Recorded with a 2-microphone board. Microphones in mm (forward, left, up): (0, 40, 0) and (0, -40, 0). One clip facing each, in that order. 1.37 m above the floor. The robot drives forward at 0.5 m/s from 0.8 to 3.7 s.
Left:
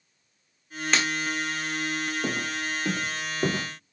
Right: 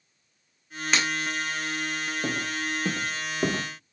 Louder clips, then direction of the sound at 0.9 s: Even; 5° right (ahead or behind).